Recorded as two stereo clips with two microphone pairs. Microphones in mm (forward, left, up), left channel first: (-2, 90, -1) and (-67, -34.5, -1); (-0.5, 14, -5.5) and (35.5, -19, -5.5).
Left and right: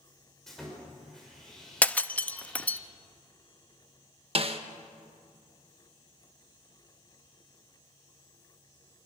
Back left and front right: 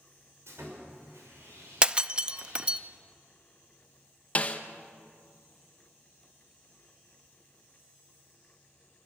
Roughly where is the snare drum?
Behind.